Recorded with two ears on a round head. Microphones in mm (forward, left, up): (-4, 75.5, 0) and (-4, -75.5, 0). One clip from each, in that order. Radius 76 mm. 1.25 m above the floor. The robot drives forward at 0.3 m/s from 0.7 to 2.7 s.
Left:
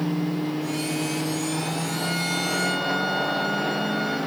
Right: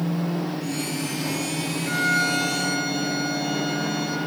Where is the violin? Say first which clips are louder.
Right 9 dB; 50° right (ahead or behind), 4 m.